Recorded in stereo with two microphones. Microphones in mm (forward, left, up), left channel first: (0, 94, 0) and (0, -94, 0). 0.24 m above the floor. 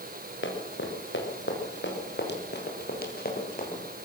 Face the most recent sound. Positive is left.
turn(degrees=45)  # may be behind; listen again after turning